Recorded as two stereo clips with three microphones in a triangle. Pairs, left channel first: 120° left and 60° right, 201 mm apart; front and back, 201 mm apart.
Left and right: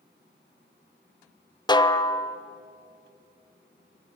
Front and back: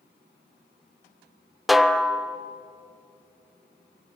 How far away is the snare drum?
About 1.0 m.